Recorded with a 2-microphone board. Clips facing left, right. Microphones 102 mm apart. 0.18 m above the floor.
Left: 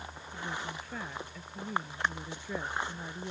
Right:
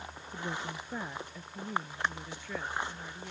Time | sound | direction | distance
0.3 | a woman speaking | 25° right (ahead or behind) | ?